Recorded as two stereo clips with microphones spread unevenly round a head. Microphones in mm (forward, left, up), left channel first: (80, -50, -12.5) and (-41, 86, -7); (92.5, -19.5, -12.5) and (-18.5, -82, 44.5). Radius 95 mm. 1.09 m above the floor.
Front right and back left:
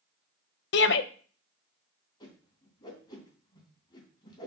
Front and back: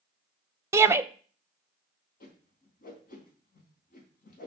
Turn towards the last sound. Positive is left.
turn(degrees=20)